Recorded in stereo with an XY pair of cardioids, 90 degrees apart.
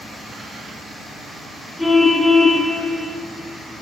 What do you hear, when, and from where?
1.8 s a car horn: 15° left, 4 m